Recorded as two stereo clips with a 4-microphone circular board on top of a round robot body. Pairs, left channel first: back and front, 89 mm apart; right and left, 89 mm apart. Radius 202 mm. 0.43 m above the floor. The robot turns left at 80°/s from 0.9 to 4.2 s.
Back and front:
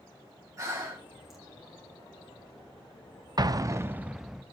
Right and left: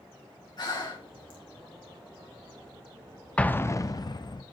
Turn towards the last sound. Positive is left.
turn(degrees=-80)